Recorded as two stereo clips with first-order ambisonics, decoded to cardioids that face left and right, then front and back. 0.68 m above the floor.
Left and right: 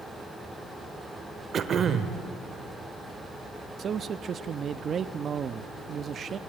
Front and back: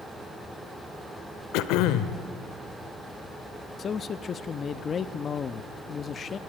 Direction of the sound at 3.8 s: 50° right.